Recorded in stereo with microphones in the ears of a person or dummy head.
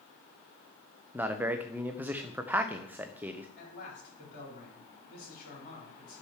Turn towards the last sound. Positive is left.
turn(degrees=60)  # may be behind; listen again after turning